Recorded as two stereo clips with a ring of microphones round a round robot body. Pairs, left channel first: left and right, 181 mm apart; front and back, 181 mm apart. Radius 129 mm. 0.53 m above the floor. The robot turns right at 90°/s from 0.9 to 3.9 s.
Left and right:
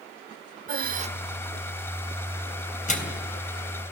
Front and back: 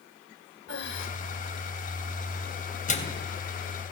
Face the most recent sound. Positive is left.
turn(degrees=135)